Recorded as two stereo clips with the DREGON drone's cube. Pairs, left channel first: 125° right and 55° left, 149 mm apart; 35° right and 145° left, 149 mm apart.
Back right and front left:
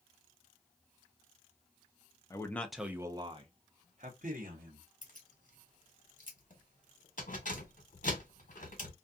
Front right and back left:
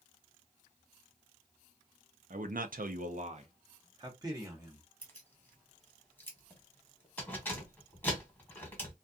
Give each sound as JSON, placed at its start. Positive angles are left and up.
{"t": 2.3, "sound": "a man speaking", "azimuth_deg": 170, "distance_m": 0.6}
{"t": 5.0, "sound": "keys jangling", "azimuth_deg": -110, "distance_m": 1.1}